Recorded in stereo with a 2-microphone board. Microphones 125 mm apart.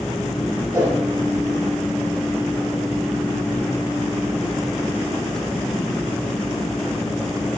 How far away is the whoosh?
About 9 m.